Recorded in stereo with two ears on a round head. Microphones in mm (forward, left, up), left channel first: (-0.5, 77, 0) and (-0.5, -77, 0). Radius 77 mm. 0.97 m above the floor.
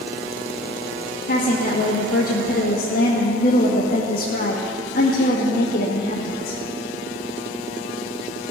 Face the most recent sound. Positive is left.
turn(degrees=55)  # may be behind; listen again after turning